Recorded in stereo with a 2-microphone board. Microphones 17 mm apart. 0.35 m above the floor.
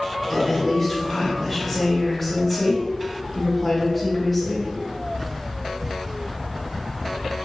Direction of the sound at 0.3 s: 10° left (ahead or behind).